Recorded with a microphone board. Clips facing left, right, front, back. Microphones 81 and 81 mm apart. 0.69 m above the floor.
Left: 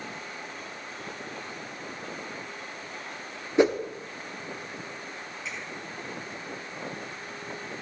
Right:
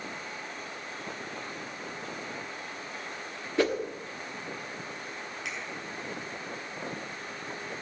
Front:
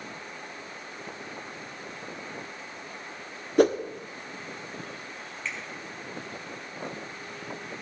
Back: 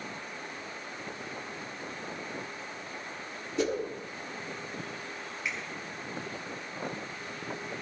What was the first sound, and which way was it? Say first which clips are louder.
A whoosh: left 5 dB, front 9 dB; 25° left.